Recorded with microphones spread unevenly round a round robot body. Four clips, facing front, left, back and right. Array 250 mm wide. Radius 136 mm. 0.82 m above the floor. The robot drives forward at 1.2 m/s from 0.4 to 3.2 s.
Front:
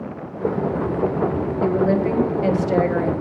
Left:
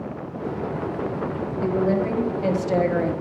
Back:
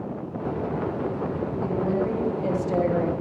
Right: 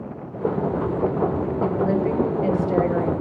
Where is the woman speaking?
10° left, 2.5 m; by 3.1 s 40° left, 1.0 m.